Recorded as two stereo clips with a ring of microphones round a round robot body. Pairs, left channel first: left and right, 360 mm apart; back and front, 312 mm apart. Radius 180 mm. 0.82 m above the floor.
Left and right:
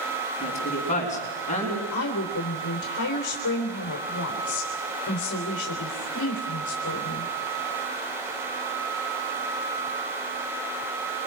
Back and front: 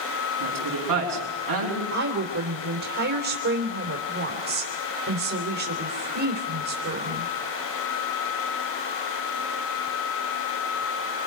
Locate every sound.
0.4 s a woman speaking: 20° left, 5.5 m
1.9 s a woman speaking: 35° left, 3 m